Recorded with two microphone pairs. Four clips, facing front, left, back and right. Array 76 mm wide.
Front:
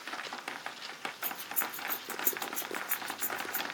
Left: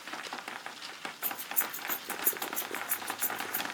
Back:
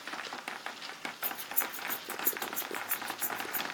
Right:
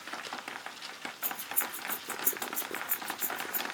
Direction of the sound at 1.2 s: 45° right.